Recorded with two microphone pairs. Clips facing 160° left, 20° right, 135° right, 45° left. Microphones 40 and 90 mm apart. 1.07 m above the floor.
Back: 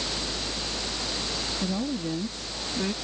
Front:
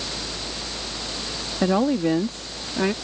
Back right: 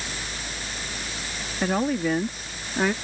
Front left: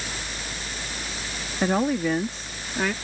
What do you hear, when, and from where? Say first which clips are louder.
1.6 s a woman speaking: front 12 dB, front left 1 dB; 40° right; by 2.9 s 60° right